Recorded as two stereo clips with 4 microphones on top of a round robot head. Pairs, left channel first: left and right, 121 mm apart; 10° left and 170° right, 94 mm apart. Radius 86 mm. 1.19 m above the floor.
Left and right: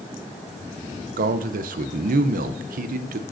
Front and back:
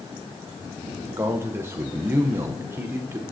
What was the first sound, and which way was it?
A man speaking, 100° right.